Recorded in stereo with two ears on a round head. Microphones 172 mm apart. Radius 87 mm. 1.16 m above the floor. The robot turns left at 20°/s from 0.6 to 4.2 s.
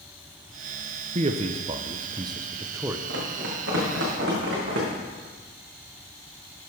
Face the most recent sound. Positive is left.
turn(degrees=-70)  # may be behind; listen again after turning